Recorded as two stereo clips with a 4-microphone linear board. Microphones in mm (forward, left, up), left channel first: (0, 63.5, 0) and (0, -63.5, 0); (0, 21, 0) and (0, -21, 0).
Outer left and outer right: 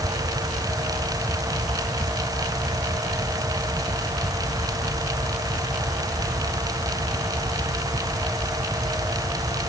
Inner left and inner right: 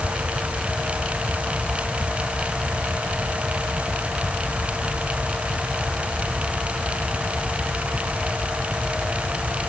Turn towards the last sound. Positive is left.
No sound to turn to.